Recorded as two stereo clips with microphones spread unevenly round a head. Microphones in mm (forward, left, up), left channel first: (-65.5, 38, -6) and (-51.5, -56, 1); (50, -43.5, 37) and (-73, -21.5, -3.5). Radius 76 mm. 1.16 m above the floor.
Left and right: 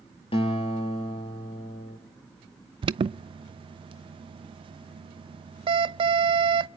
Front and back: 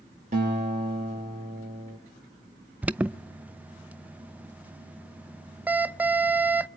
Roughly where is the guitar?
Behind left.